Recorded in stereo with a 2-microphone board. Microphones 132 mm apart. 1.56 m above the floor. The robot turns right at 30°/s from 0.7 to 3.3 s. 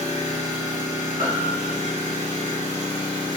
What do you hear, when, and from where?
0.0 s an engine running: 65° left, 1.5 m; by 3.4 s 140° left, 1.5 m
1.2 s a piano: 45° right (ahead or behind), 2.0 m; by 1.9 s 65° right (ahead or behind), 2.0 m